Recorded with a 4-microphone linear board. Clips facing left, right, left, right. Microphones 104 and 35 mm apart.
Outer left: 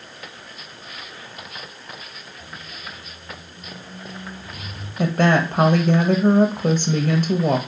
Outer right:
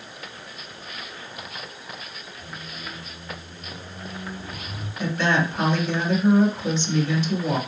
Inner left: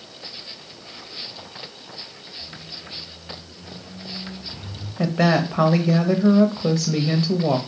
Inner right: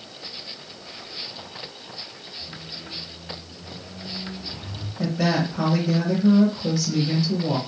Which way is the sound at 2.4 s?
40° right (ahead or behind).